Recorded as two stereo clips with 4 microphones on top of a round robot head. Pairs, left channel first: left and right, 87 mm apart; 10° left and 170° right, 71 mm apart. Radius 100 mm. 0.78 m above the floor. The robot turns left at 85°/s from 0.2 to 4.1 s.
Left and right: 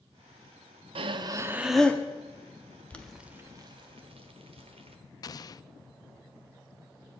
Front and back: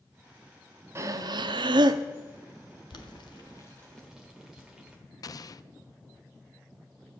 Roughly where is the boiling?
Ahead.